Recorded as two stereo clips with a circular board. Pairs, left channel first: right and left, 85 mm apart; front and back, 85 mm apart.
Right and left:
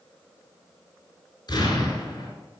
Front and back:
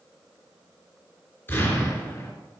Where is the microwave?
No microwave in this recording.